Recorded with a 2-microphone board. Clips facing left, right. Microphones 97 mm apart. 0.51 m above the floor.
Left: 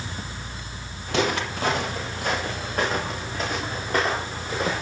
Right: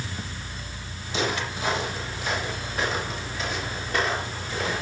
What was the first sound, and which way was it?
Footsteps, 60° left (ahead or behind).